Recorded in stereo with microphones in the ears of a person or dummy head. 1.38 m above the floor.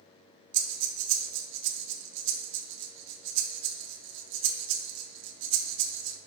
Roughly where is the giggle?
No giggle in this recording.